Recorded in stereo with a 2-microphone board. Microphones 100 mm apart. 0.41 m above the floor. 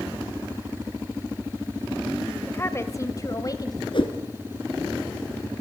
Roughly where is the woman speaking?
Left.